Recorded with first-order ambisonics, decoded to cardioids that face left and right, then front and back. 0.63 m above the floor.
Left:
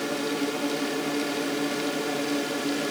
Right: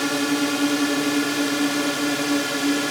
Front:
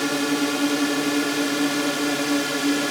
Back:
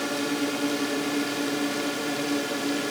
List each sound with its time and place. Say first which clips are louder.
0.0 s a drone: right 6 dB, front 5 dB; 55° right; by 2.9 s 50° right